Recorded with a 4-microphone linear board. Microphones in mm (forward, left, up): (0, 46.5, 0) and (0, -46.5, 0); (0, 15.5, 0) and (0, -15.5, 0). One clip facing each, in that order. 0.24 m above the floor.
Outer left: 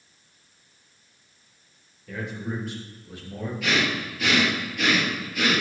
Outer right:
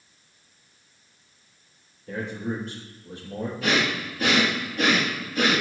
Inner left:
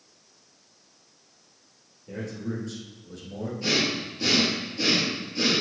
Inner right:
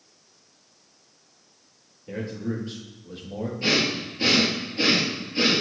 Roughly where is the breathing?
Right.